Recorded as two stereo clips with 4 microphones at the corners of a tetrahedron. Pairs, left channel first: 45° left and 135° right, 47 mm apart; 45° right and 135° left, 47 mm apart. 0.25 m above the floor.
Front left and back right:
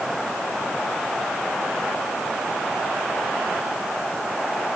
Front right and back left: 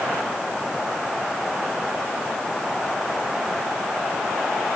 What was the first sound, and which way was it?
Only background noise.